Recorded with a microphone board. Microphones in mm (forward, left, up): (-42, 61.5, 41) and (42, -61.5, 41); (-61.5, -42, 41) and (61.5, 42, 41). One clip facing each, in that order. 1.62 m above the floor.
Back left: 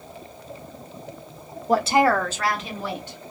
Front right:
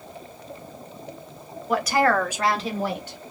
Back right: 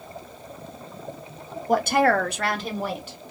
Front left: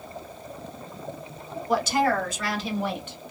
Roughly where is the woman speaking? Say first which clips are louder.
Back left 2 dB, back right 3 dB; behind.